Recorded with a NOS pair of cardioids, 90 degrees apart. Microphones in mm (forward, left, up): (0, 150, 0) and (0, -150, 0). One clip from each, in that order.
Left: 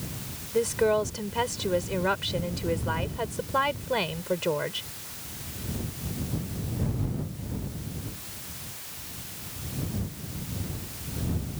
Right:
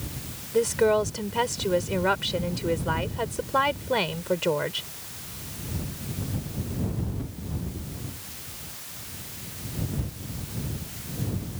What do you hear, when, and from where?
0.5 s a woman speaking: 15° right